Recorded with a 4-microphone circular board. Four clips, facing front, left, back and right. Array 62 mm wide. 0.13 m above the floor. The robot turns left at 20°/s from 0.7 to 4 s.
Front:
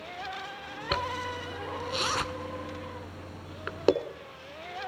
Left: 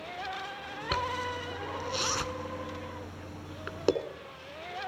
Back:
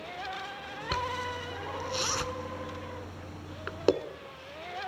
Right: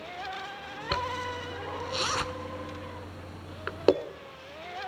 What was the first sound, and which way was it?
A zipper, 15° right.